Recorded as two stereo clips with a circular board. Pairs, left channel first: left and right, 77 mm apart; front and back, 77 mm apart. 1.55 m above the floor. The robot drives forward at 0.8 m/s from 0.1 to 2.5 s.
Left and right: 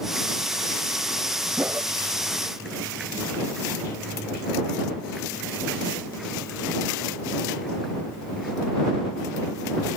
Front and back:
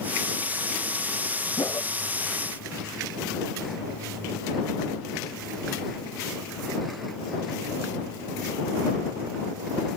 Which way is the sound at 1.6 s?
30° right.